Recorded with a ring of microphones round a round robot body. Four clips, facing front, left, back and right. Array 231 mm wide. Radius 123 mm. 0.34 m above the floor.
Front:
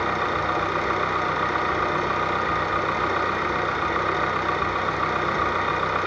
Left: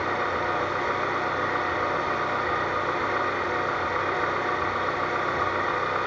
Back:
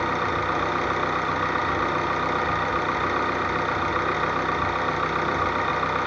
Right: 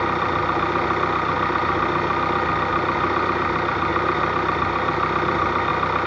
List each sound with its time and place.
0.0 s an engine running: 100° right, 1.5 m